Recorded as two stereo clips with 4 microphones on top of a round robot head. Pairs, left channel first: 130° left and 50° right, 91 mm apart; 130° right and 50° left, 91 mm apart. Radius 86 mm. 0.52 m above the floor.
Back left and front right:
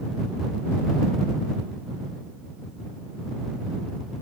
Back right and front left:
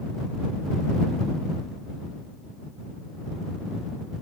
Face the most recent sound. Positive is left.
No sound to turn to.